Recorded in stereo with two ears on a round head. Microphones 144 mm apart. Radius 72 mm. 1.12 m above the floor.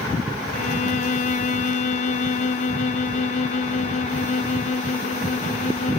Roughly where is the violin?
Left.